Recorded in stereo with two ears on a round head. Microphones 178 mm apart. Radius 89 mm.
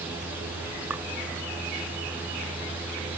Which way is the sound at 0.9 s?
10° right (ahead or behind).